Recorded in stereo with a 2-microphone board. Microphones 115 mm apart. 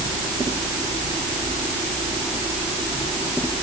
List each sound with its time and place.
Only background noise.